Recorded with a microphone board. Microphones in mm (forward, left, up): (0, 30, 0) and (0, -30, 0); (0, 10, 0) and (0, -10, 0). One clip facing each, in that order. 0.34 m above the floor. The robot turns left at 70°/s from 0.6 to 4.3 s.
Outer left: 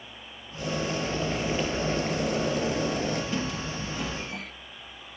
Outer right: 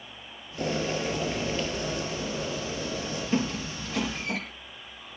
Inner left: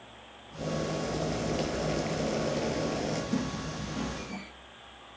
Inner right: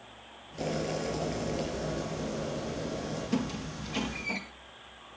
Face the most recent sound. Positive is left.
turn(degrees=-80)